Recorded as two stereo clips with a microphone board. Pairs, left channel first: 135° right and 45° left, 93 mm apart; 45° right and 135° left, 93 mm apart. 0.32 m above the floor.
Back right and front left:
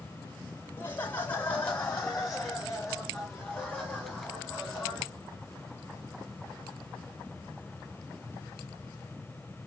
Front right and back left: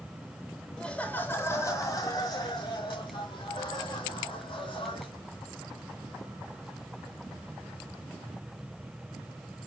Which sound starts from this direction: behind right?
Laughter, at 0.8 s.